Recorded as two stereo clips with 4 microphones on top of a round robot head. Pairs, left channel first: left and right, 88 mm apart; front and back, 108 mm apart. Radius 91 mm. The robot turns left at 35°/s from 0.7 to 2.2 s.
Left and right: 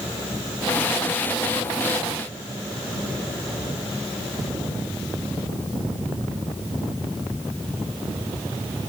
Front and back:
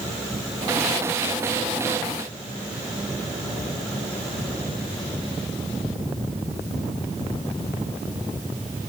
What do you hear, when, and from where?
Only background noise.